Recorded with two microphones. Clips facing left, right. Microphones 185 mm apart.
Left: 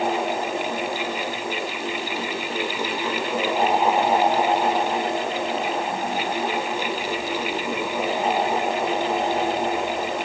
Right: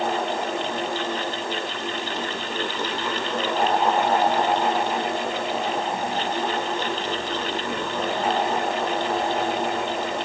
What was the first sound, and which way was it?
Only background noise.